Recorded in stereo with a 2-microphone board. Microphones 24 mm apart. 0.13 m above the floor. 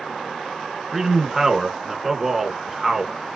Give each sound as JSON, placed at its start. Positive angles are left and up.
{"t": 0.9, "sound": "a man speaking", "side_deg": -10, "distance_m": 1.1}